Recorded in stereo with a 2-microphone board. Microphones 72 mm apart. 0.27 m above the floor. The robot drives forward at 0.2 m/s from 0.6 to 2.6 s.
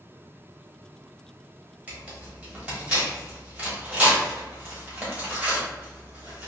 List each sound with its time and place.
1.9 s tearing paper: 20° right (ahead or behind), 1.1 m